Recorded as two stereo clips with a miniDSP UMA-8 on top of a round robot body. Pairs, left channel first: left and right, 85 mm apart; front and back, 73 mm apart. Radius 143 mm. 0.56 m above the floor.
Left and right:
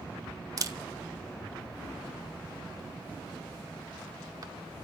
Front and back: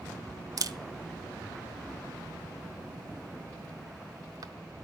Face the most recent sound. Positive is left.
turn(degrees=-140)